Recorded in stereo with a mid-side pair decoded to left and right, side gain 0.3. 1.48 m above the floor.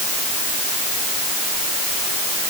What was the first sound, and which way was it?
Only background noise.